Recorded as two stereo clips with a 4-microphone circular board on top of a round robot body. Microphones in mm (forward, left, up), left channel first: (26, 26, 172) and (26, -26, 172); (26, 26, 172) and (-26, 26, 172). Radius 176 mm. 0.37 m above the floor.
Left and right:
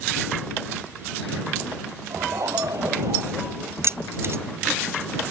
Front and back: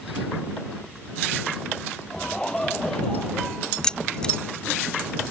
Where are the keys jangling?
70° right.